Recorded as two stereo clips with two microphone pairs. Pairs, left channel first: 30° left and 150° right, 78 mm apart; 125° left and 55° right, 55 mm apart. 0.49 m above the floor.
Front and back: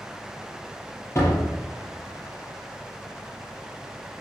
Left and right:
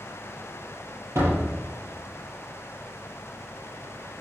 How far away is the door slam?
About 7.5 m.